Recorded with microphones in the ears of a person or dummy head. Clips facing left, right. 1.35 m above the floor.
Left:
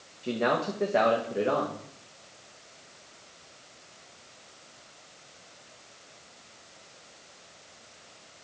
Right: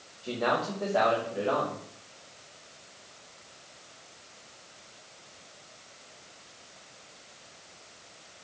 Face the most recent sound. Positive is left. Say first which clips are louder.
# left 2 dB
turn(degrees=40)  # may be behind; listen again after turning